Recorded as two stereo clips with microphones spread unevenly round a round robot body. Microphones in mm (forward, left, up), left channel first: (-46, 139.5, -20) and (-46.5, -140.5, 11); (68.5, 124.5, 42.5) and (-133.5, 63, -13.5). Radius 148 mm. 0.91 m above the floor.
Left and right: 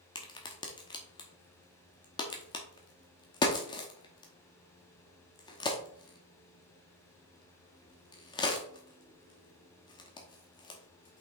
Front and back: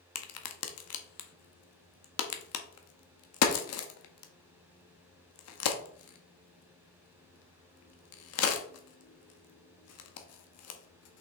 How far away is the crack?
About 1.0 m.